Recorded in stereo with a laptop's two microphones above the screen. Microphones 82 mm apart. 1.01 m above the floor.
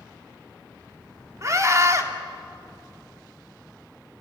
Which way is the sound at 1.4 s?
40° right (ahead or behind).